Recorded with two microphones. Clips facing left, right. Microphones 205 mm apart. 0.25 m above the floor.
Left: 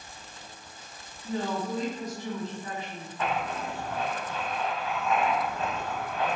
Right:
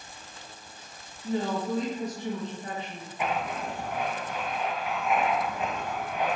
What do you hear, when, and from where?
1.2 s a woman speaking: 40° right (ahead or behind), 1.5 m
3.2 s writing: 15° right (ahead or behind), 0.8 m